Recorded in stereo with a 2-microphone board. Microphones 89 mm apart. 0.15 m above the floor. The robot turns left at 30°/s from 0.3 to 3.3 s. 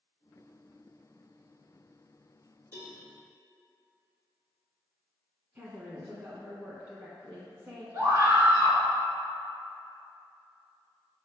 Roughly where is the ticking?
No ticking in this recording.